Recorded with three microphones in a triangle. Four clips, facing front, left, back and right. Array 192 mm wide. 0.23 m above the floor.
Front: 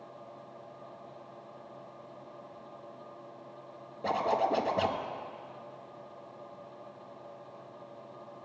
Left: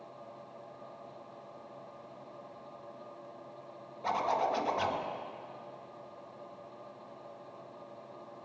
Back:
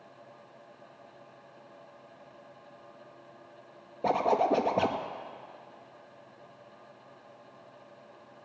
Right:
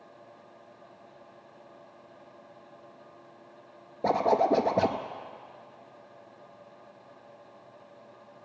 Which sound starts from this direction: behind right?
A zipper, at 4.0 s.